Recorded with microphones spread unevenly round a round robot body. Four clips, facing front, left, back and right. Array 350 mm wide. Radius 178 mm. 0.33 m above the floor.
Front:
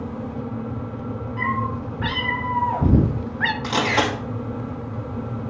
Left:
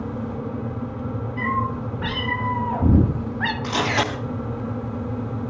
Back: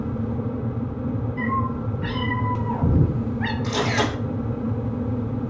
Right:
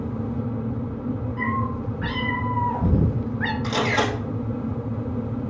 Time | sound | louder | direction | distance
1.4 | a cat meowing | left 4 dB, front 1 dB | 15° left | 3.5 m
3.6 | a camera shutter | right 1 dB, front 2 dB | 5° left | 3.5 m